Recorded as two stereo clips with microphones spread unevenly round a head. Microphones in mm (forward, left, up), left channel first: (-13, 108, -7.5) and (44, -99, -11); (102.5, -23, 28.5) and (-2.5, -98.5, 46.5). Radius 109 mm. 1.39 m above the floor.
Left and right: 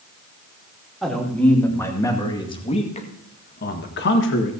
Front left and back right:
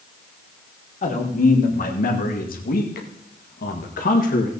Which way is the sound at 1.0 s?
15° left.